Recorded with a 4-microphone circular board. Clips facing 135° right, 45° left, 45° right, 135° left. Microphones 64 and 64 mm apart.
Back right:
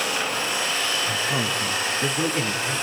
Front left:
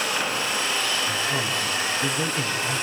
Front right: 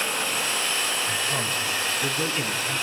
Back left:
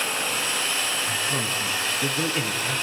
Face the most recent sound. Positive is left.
turn(degrees=180)